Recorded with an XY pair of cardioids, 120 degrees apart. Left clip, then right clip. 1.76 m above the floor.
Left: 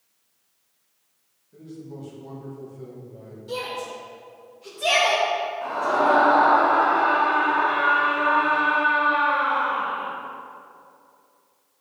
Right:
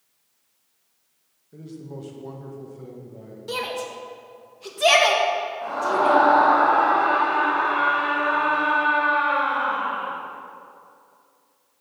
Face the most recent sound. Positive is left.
turn(degrees=10)